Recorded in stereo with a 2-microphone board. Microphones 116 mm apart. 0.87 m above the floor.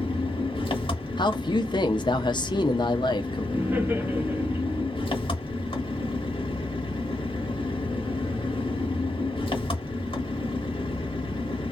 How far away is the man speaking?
About 0.6 m.